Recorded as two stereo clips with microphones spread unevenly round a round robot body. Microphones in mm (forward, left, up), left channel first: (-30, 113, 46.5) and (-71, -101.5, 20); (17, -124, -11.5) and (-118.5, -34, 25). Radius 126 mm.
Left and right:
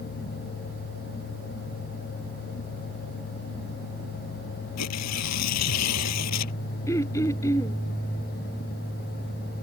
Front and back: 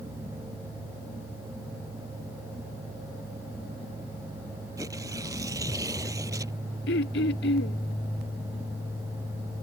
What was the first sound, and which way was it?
Tearing paper, 70° left.